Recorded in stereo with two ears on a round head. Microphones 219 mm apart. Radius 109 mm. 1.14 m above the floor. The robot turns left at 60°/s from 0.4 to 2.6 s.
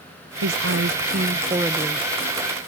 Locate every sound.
0.4 s a woman speaking: 90° right; by 2.1 s 170° left